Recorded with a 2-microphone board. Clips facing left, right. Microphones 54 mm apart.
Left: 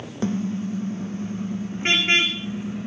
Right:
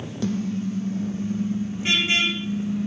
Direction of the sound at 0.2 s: 30° left (ahead or behind).